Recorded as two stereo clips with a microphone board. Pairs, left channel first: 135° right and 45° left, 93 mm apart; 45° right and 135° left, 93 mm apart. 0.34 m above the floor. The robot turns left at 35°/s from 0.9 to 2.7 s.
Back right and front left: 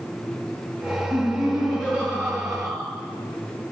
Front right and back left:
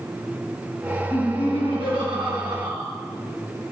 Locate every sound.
1.1 s laughter: 155° left, 3 m; by 2.9 s 100° left, 3 m